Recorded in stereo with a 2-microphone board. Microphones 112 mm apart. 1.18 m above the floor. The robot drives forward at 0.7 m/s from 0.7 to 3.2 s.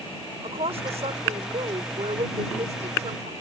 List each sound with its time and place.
0.4 s a woman speaking: 65° right (ahead or behind); by 3.3 s 85° right